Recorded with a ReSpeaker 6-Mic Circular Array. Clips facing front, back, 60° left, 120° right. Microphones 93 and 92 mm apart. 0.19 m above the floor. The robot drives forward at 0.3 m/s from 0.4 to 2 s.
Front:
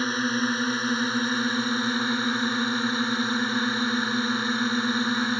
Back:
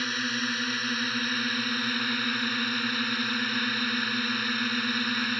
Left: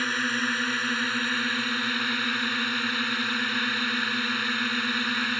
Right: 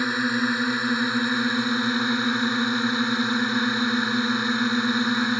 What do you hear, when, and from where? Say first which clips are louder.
0.0 s a drone: front 6 dB, right 4 dB; 50° right; by 5.4 s 55° right